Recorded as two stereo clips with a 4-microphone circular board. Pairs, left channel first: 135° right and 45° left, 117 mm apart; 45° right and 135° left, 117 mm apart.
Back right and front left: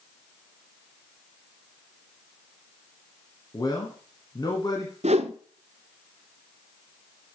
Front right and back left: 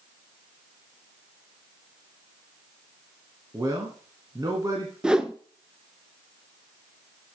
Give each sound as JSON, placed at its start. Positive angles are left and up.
{"t": 3.5, "sound": "a man speaking", "azimuth_deg": -175, "distance_m": 1.8}
{"t": 5.0, "sound": "a whoosh", "azimuth_deg": 55, "distance_m": 0.8}